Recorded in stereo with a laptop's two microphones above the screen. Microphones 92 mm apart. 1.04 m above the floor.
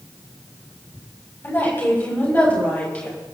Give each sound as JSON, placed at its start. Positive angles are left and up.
{"t": 1.4, "sound": "a woman speaking", "side_deg": 20, "distance_m": 7.0}